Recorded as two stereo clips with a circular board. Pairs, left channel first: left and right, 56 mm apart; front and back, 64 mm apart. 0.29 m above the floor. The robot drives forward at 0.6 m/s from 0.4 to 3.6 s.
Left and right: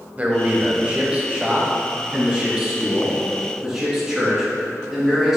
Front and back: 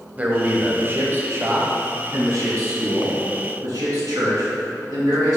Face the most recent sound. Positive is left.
turn(degrees=-170)